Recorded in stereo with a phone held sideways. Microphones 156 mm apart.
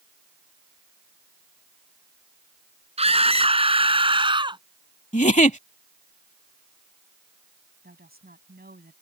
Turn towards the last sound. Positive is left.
turn(degrees=-85)